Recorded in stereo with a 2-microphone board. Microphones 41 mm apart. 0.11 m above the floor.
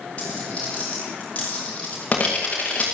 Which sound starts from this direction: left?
A dropped coin, at 0.2 s.